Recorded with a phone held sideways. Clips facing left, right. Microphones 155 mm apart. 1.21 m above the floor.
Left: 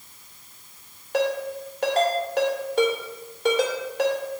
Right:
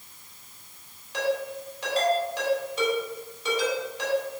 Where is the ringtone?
60° left (ahead or behind), 2.5 m.